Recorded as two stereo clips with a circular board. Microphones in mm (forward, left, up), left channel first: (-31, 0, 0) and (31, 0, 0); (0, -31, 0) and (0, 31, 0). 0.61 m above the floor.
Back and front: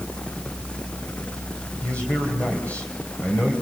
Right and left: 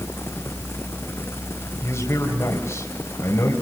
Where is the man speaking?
115° right, 3.5 m.